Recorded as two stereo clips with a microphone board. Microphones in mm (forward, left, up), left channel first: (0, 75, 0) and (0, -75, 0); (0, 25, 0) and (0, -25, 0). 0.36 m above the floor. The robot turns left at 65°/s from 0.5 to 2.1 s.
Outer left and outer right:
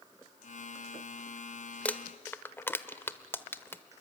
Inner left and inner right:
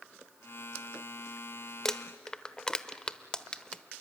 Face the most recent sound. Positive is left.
turn(degrees=15)  # may be behind; listen again after turning